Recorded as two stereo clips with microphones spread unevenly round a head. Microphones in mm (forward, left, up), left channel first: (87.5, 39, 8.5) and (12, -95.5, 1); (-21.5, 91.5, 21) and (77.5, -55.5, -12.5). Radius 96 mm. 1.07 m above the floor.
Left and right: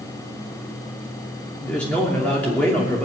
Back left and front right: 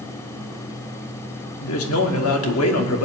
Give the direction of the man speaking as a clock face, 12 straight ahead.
7 o'clock.